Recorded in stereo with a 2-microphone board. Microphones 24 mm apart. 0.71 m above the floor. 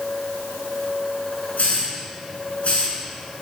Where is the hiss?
85° left, 6.5 m.